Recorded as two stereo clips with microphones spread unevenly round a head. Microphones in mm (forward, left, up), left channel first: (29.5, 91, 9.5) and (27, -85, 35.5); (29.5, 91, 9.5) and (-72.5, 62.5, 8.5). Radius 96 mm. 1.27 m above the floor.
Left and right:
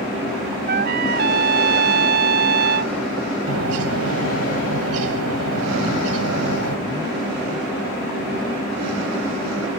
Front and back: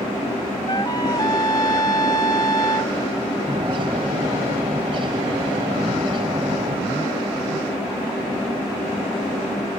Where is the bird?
100° right.